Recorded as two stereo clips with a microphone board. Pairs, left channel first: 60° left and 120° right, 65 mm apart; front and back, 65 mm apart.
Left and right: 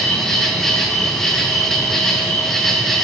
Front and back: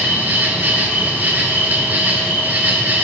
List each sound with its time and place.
0.0 s an insect: 140° left, 1.0 m